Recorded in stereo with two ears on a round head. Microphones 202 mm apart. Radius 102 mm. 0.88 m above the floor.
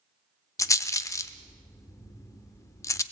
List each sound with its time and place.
0.6 s a rattle: 15° left (ahead or behind), 0.6 m